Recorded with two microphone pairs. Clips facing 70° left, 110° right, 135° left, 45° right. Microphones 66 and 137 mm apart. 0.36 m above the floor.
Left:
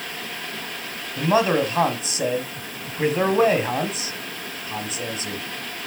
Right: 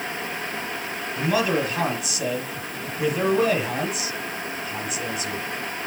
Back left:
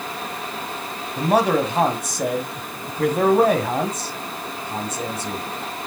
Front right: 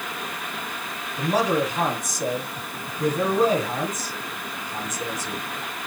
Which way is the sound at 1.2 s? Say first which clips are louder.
Left 4 dB, back left 4 dB; 125° left.